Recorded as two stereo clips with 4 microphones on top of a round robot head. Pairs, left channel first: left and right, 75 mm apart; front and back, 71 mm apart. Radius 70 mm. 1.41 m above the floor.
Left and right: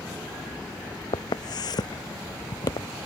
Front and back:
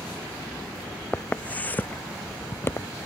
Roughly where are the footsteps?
Left.